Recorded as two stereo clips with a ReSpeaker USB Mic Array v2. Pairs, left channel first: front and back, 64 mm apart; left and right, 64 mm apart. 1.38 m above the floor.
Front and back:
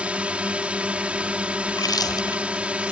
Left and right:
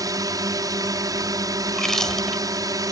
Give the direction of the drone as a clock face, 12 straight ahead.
4 o'clock.